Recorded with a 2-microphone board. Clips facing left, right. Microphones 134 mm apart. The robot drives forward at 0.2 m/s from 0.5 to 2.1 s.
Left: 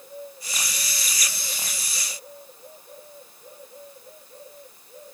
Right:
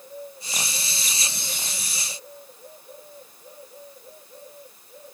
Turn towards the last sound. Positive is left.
No sound to turn to.